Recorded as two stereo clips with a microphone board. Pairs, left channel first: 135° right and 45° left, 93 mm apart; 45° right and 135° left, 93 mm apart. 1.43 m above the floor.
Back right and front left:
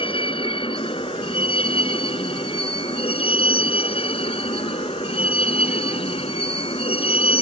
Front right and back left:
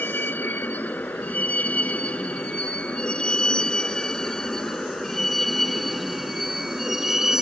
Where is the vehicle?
115° right; by 7.4 s 140° right.